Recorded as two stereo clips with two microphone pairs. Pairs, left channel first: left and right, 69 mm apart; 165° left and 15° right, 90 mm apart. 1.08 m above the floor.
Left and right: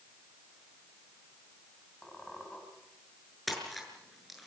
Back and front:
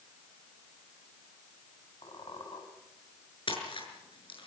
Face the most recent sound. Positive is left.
turn(degrees=180)